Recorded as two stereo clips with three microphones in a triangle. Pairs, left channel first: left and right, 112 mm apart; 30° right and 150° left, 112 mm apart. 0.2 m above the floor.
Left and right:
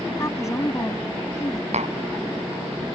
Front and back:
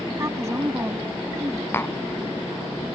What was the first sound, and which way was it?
A woman speaking, 115° left.